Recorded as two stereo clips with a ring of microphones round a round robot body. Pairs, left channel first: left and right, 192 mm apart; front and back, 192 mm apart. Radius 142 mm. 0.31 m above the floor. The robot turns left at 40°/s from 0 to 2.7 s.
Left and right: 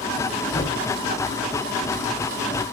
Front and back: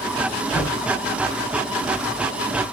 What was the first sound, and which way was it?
A thud, 40° left.